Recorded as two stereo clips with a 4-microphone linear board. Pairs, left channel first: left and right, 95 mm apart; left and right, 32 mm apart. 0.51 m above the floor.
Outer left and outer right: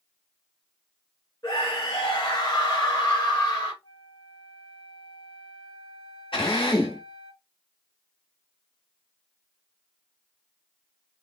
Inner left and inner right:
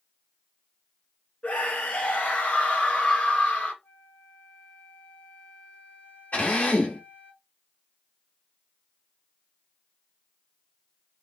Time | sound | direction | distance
1.4 | a scream | 45° left (ahead or behind) | 3 m
3.8 | a flute | 50° left (ahead or behind) | 1.3 m
6.3 | a drill | 70° left (ahead or behind) | 2.5 m